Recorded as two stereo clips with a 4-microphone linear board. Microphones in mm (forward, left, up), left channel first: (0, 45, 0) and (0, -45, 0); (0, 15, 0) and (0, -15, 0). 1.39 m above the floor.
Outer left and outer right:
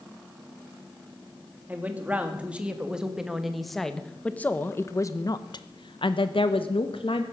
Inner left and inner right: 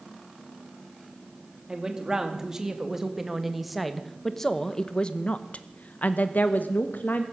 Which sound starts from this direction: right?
A woman speaking, at 1.7 s.